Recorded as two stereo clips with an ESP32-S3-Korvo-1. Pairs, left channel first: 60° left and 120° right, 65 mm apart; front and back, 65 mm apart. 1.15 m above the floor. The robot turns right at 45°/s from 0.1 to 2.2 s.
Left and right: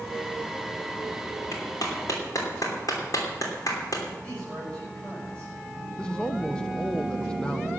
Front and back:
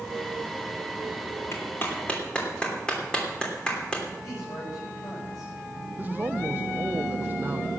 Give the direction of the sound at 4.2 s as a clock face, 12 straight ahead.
12 o'clock.